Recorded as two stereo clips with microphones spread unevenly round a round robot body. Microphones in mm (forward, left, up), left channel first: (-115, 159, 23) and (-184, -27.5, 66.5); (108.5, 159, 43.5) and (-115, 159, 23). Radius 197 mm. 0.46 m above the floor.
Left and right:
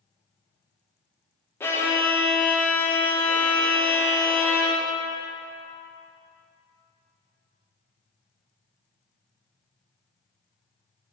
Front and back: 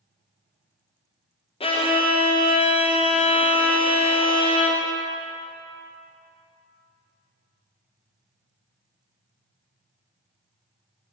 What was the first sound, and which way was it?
A violin, 45° left.